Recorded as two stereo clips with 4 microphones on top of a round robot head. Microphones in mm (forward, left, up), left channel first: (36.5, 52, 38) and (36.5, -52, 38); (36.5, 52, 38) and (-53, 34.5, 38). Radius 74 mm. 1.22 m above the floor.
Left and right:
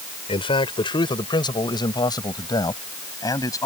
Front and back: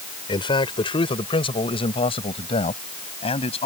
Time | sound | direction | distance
0.3 | a man speaking | 50° left | ?